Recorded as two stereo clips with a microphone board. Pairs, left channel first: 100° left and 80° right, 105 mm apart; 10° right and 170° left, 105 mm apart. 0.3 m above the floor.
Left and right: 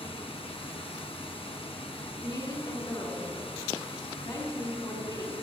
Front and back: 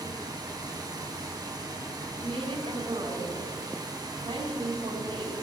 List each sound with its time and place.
0.0 s running water: 120° left, 1.6 m
2.2 s a woman speaking: 150° left, 3.5 m